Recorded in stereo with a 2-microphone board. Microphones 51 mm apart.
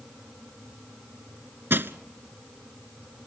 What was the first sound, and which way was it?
Crushing, 50° right (ahead or behind).